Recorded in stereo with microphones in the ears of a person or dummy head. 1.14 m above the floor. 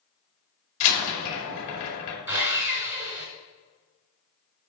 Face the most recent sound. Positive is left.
turn(degrees=-15)  # may be behind; listen again after turning